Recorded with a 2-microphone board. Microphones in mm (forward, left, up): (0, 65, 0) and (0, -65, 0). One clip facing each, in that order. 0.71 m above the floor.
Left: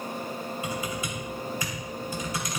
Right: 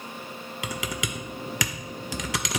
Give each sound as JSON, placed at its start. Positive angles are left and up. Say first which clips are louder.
{"t": 0.6, "sound": "typing on a keyboard", "louder": "right 3 dB", "side_deg": -80, "distance_m": 0.5}